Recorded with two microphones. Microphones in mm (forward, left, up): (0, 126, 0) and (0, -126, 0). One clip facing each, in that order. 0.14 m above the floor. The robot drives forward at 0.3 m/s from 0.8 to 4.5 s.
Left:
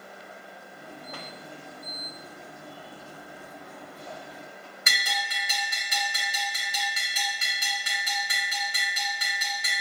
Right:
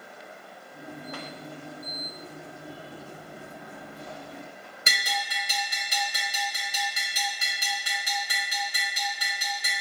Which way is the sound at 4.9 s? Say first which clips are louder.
Right 2 dB; 30° right (ahead or behind).